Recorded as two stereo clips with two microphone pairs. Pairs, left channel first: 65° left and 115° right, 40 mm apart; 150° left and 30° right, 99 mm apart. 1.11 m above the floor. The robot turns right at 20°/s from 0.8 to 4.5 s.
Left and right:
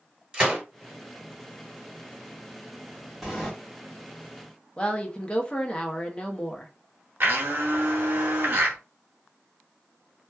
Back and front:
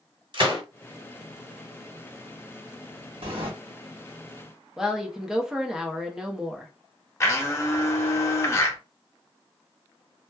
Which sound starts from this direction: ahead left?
A woman speaking, at 4.8 s.